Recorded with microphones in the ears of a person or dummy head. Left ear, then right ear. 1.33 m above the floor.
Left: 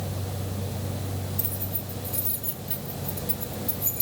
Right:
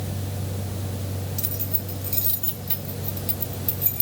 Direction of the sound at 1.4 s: 70° right (ahead or behind).